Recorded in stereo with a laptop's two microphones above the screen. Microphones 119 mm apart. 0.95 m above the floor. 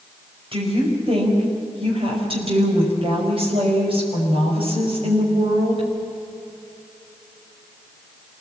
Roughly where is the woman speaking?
Right.